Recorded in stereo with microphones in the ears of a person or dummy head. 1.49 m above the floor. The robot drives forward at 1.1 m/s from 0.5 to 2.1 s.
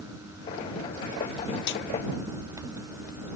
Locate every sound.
1.7 s a snare drum: 60° left (ahead or behind)